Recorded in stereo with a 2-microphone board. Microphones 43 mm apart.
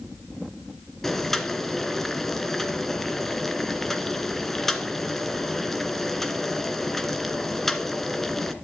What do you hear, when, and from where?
1.0 s boiling: 5° left (ahead or behind), 1.6 m